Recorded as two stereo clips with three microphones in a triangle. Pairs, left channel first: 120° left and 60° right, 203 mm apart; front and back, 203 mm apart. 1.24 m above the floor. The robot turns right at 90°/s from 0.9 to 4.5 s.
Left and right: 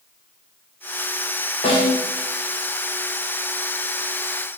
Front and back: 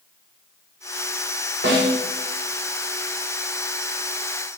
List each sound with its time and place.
1.6 s a snare drum: 170° left, 0.7 m; by 2.0 s 155° right, 0.7 m